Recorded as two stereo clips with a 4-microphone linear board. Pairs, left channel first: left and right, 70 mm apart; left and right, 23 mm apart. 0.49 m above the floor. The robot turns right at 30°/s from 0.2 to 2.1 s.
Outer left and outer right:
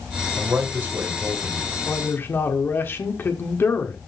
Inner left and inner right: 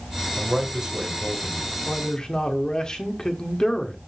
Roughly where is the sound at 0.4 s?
Ahead right.